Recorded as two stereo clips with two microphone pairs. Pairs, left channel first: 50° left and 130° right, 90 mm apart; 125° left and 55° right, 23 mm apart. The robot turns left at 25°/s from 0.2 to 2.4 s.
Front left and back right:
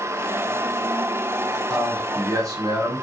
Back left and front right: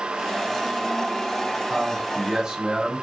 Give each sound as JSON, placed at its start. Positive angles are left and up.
{"t": 1.7, "sound": "a man speaking", "azimuth_deg": -80, "distance_m": 1.7}